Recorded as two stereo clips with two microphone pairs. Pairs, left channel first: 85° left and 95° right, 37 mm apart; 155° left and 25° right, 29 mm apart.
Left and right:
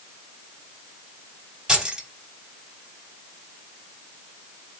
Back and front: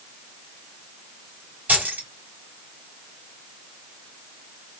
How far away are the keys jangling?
About 1.7 m.